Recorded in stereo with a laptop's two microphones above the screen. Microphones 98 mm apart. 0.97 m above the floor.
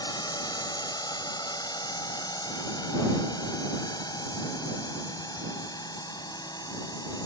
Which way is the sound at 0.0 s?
45° left (ahead or behind).